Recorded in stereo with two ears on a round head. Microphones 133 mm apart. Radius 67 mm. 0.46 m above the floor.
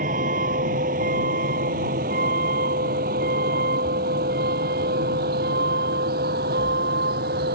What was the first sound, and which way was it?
A vehicle, 55° right (ahead or behind).